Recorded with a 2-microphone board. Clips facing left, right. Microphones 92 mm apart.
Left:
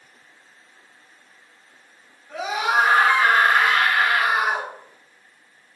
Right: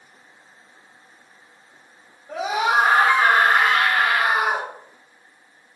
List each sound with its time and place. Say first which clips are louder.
2.3 s a scream: right 2 dB; 65° right (ahead or behind), 2 m; by 4.7 s 70° right (ahead or behind), 3.5 m